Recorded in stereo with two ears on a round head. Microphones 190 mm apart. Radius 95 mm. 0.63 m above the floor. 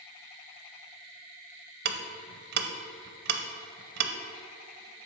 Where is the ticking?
50° right (ahead or behind), 0.6 m.